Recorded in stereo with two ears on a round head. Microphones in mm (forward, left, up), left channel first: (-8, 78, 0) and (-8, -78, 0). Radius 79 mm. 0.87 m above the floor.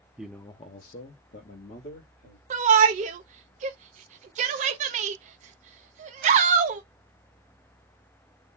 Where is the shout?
45° right (ahead or behind), 0.7 m.